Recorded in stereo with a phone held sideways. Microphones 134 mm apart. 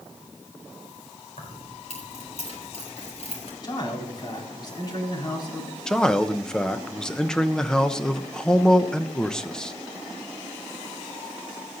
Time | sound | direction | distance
1.4 | keys jangling | 65° left (ahead or behind) | 4 m
3.6 | a man speaking | 35° left (ahead or behind) | 4 m
5.9 | a man speaking | 5° left (ahead or behind) | 0.9 m